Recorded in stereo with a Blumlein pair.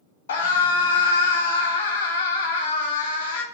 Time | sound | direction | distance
0.3 | a scream | 65° left | 0.8 m